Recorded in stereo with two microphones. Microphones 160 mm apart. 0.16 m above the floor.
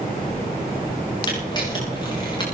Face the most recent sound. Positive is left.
turn(degrees=25)  # may be behind; listen again after turning